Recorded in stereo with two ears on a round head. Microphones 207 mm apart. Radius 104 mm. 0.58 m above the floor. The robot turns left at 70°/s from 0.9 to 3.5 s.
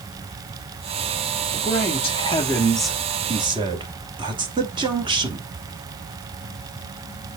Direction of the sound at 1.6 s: 85° left.